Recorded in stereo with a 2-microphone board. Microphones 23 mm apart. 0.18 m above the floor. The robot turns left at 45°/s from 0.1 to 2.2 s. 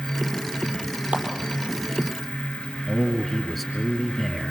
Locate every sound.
1.1 s a clap: 60° right (ahead or behind), 5 m; by 1.2 s 65° right (ahead or behind), 5 m
2.9 s a man speaking: 5° right (ahead or behind), 2.5 m